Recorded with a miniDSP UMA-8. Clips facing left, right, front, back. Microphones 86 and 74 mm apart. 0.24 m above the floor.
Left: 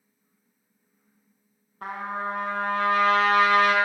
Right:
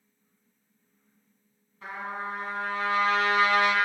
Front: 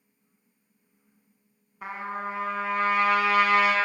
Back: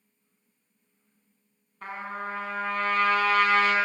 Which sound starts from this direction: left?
A trumpet, at 1.8 s.